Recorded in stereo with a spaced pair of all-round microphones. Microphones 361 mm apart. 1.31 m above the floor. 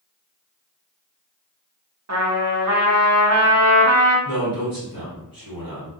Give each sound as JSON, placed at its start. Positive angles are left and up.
{"t": 2.1, "sound": "a trumpet", "side_deg": -50, "distance_m": 0.6}
{"t": 4.2, "sound": "a man speaking", "side_deg": -70, "distance_m": 1.4}